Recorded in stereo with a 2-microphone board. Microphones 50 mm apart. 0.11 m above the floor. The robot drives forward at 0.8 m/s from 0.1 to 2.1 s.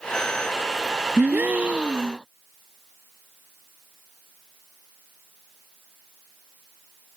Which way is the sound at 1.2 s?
45° right (ahead or behind).